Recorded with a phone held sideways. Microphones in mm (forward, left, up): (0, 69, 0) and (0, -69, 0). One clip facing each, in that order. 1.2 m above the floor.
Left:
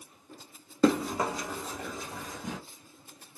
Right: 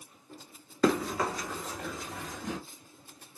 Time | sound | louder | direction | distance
0.8 | running footsteps | left 2 dB | 25° left (ahead or behind) | 1.2 m